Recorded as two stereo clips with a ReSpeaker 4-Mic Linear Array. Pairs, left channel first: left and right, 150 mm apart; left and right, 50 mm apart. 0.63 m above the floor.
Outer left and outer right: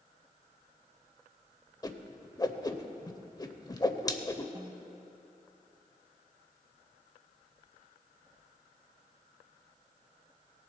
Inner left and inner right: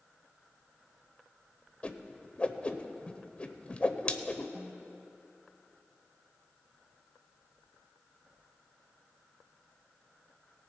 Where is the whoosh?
25° left (ahead or behind), 0.6 m.